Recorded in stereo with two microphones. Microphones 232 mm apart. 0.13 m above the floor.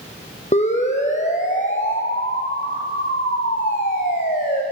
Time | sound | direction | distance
0.5 | a siren | 30° left (ahead or behind) | 4 m